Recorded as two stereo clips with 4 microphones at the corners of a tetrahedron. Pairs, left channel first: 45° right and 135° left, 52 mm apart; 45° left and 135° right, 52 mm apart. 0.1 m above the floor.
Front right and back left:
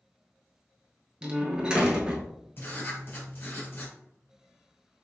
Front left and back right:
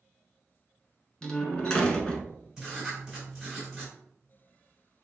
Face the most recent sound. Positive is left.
turn(degrees=-60)